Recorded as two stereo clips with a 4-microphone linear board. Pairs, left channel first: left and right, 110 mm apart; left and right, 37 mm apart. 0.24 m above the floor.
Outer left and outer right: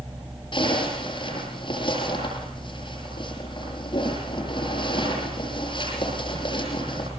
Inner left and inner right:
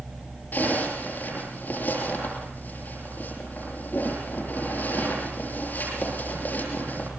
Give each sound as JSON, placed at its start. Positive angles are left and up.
{"t": 0.5, "sound": "a zipper", "side_deg": 45, "distance_m": 8.0}